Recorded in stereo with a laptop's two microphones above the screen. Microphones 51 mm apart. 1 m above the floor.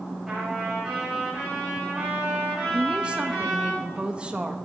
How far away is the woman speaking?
About 1.0 m.